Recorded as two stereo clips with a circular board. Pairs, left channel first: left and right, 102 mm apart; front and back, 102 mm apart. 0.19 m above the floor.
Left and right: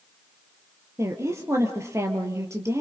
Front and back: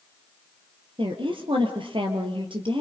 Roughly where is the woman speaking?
Behind right.